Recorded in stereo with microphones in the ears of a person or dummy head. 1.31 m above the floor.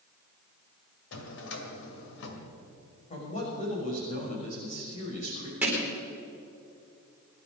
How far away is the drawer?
About 2 m.